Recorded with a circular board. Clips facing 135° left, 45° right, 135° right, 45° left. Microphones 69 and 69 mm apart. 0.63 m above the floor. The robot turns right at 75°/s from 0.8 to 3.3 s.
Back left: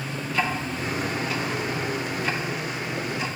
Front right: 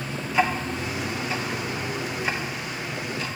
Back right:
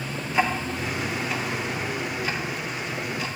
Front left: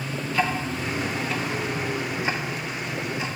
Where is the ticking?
95° right, 0.5 m; by 3.4 s 90° left, 0.5 m.